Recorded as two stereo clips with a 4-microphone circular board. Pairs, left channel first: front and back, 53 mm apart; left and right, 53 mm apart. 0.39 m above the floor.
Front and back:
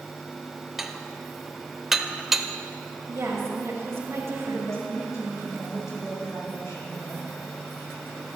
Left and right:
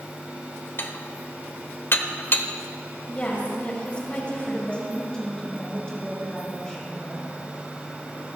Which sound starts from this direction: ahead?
A woman speaking, at 4.5 s.